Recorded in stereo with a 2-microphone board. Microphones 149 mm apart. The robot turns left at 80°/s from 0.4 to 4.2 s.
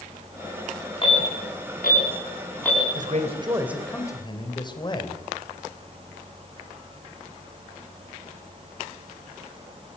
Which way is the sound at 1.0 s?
35° left (ahead or behind).